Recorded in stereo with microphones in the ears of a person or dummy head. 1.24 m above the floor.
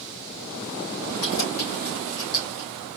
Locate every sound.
1.2 s keys jangling: 85° left, 3.5 m; by 2.7 s 75° left (ahead or behind), 3 m